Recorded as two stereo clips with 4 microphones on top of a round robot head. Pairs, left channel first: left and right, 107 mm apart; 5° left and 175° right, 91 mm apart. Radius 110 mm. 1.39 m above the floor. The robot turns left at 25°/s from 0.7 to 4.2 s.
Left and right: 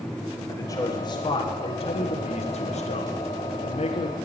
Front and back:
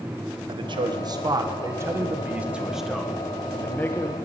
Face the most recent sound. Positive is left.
turn(degrees=65)